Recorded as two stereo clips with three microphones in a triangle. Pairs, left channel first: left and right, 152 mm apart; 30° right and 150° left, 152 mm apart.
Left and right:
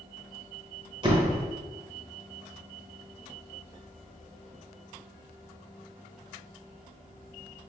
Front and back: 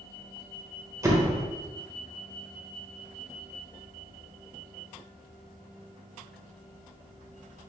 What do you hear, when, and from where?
1.0 s a door slam: 140° right, 0.9 m